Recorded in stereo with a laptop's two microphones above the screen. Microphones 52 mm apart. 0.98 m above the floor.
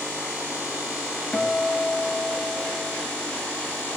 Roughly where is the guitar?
Left.